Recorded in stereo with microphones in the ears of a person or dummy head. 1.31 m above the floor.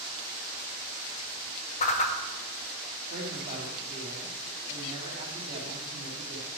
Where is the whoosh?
30° left (ahead or behind), 0.8 m.